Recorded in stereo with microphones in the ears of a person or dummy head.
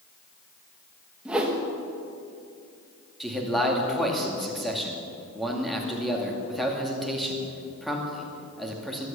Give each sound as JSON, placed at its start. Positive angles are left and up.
{"t": 1.2, "sound": "a whoosh", "side_deg": -5, "distance_m": 1.6}
{"t": 3.2, "sound": "a man speaking", "side_deg": 0, "distance_m": 2.5}